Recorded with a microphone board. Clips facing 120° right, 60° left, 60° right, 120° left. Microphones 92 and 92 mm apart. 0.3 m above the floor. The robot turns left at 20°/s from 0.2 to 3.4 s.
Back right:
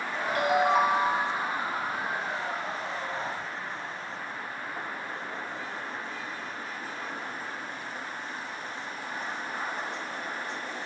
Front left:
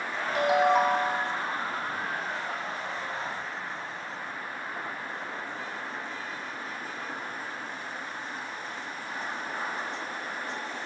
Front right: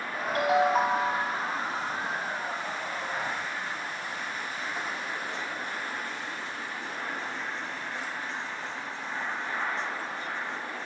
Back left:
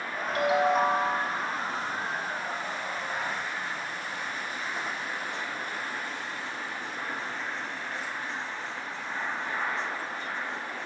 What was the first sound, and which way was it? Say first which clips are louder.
A ringtone: front left 1 dB, even; 15° right.